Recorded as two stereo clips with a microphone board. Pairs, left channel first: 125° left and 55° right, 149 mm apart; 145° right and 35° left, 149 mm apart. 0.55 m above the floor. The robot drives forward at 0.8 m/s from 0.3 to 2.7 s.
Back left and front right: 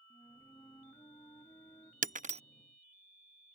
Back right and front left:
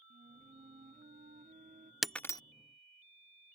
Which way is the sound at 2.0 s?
55° right.